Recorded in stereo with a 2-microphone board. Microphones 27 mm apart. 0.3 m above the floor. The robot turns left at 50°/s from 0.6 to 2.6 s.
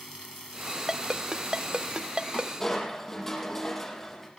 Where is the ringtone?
15° right (ahead or behind), 0.7 m; by 2.5 s 30° right (ahead or behind), 0.7 m.